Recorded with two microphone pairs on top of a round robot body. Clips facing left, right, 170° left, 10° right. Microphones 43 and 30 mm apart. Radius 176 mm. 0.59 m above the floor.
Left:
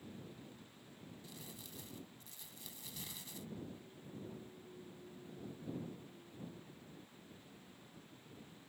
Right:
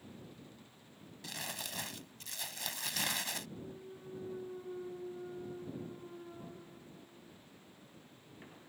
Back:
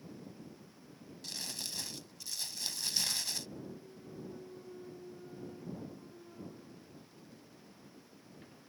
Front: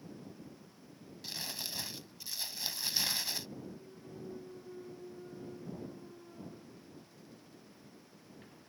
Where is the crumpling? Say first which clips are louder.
Right 16 dB, front 1 dB; 85° right.